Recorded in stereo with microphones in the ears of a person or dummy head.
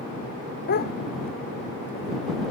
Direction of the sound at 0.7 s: 45° left (ahead or behind).